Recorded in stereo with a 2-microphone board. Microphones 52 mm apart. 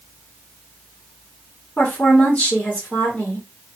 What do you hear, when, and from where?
1.8 s a woman speaking: 20° left (ahead or behind), 1.5 m